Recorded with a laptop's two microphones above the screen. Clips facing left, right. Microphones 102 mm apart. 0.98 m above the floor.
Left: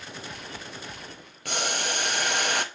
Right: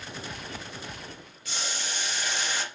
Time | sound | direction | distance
1.4 | boiling | 60° left (ahead or behind) | 0.6 m